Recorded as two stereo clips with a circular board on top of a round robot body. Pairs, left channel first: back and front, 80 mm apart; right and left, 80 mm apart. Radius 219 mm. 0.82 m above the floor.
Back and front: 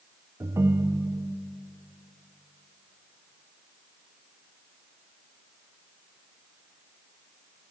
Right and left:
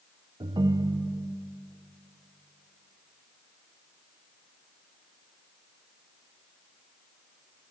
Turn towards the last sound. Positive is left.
turn(degrees=55)